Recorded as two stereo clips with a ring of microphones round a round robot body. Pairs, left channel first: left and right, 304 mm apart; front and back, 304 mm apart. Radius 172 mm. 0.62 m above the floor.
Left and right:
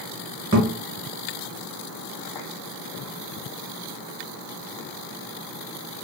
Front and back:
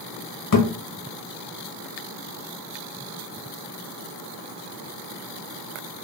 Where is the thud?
15° right, 0.9 m.